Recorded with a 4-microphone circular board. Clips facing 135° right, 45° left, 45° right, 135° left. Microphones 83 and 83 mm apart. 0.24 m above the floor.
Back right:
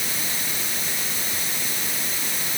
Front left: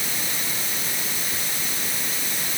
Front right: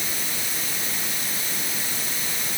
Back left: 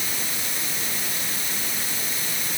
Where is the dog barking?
No dog barking in this recording.